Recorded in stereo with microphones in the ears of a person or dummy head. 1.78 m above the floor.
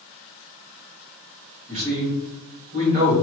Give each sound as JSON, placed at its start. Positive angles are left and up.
{"t": 1.7, "sound": "a man speaking", "side_deg": -40, "distance_m": 1.4}